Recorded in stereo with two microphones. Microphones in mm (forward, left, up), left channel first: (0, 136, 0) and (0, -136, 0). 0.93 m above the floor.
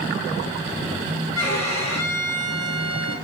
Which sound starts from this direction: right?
A violin, at 1.4 s.